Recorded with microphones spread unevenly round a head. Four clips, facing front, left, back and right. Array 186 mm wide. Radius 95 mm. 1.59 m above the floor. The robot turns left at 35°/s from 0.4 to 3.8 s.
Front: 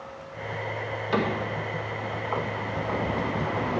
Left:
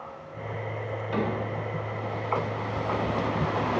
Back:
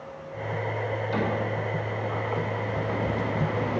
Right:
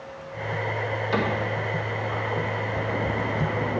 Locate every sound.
1.1 s a cupboard door: 15° right, 1.8 m; by 1.4 s 25° right, 1.8 m